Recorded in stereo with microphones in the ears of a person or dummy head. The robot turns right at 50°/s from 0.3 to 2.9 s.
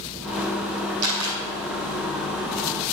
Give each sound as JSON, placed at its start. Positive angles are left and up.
{"t": 1.0, "sound": "a camera shutter", "side_deg": -65, "distance_m": 3.5}